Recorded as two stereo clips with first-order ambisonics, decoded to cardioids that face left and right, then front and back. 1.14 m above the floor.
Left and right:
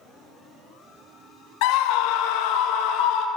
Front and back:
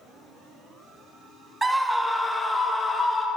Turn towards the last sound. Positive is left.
turn(degrees=75)